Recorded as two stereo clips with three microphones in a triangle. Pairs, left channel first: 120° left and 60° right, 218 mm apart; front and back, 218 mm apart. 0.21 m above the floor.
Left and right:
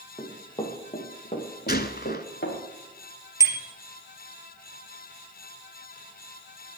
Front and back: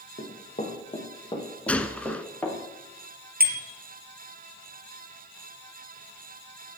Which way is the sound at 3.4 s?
135° right.